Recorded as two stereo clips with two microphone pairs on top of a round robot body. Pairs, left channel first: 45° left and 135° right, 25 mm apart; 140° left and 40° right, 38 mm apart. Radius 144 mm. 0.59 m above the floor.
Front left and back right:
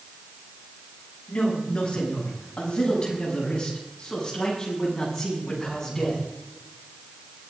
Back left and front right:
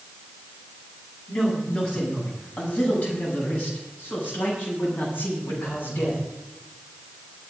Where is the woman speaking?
90° left, 7 m; by 6.2 s 120° left, 8 m.